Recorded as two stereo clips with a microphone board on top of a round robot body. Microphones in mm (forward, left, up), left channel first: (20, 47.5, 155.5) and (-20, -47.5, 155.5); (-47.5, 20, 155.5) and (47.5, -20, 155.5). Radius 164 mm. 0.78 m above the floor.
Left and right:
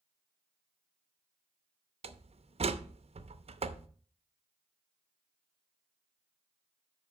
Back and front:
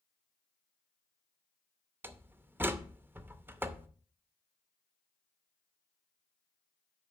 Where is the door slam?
95° right, 0.8 m.